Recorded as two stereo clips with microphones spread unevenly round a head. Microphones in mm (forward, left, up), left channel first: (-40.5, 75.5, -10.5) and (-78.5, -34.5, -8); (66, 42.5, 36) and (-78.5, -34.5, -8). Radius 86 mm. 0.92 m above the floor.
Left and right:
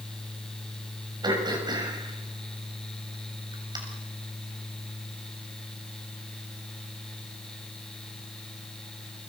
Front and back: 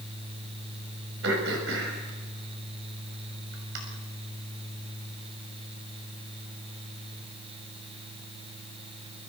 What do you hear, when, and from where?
1.2 s throat clearing: 160° right, 6.5 m